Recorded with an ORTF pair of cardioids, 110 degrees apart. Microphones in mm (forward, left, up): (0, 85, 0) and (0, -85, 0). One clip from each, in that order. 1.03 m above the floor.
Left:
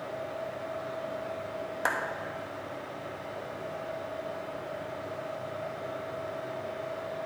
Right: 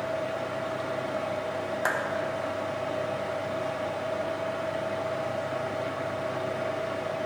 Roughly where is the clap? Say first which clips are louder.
Right 1 dB; ahead.